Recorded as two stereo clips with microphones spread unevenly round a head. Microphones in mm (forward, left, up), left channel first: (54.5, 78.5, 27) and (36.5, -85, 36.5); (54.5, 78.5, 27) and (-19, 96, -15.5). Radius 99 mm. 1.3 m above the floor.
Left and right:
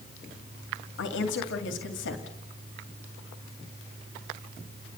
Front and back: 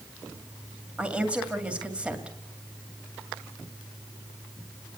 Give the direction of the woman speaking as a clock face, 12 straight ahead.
9 o'clock.